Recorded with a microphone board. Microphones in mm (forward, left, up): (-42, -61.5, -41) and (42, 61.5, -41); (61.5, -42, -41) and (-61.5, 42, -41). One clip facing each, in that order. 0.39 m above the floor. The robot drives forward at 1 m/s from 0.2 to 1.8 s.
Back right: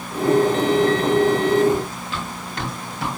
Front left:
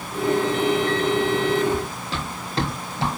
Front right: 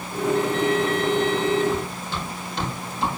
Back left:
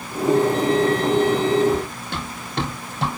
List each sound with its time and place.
1.7 s running footsteps: 110° left, 5.5 m; by 3.1 s 120° left, 7 m